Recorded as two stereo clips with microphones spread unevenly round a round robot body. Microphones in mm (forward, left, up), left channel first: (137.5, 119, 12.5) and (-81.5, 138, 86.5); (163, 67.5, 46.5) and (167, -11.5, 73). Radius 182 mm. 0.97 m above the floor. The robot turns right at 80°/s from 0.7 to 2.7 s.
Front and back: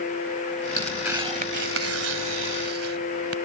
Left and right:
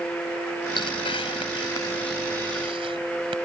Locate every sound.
0.8 s tearing paper: 70° left; by 3.4 s 135° right